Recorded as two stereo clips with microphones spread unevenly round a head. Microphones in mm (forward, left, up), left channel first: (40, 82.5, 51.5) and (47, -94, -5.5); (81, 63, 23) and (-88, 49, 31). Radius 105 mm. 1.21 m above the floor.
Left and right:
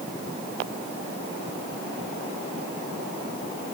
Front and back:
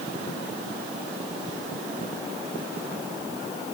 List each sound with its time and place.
Only background noise.